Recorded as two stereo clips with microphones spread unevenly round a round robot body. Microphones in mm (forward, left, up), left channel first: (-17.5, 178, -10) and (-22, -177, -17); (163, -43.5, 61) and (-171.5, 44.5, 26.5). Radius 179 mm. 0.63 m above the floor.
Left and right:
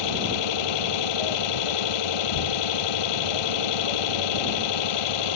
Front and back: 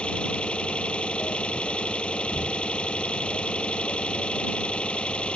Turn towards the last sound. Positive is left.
turn(degrees=70)